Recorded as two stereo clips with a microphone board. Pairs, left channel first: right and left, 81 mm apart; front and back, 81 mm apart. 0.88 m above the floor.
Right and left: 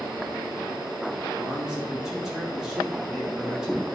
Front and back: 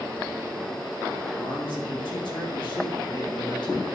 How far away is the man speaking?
About 1.7 m.